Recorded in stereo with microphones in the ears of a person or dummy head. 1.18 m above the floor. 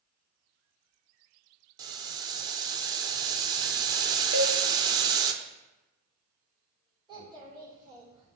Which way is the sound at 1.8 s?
20° right (ahead or behind).